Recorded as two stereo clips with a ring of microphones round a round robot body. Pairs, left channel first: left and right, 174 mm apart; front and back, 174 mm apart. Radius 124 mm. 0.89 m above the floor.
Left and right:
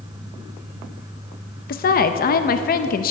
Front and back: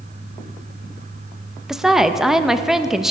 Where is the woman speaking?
95° left, 0.7 m.